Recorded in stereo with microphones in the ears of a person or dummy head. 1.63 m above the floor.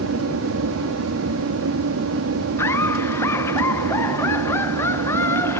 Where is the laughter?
15° left (ahead or behind).